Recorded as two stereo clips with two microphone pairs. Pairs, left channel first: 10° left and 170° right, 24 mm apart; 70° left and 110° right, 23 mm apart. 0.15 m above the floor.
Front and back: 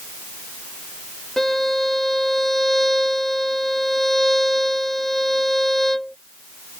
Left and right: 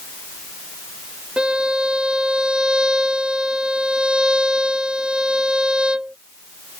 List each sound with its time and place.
1.4 s a violin: 60° right